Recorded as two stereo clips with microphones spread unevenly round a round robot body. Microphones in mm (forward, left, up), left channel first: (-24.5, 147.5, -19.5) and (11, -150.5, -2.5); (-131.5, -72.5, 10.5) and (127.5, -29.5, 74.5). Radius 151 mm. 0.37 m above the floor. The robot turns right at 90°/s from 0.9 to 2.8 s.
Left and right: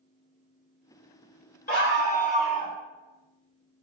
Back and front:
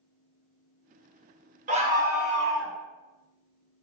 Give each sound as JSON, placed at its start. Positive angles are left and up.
{"t": 1.7, "sound": "a scream", "azimuth_deg": 70, "distance_m": 1.2}